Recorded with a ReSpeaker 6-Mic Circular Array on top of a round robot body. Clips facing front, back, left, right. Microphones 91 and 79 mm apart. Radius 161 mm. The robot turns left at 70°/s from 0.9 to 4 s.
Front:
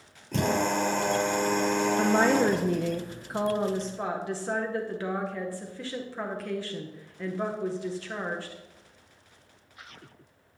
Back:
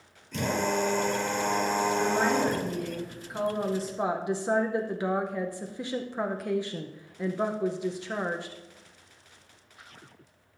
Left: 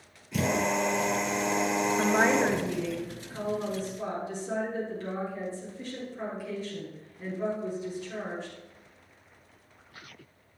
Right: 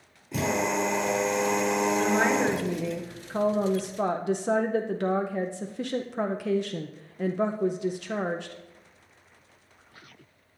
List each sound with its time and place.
0.3 s a drill: 40° right, 3 m; by 3.0 s 175° left, 3 m
2.0 s a woman speaking: 35° left, 0.6 m; by 8.6 s 110° right, 0.6 m